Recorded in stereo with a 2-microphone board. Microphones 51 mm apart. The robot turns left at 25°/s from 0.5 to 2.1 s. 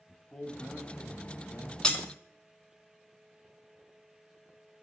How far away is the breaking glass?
About 1.1 m.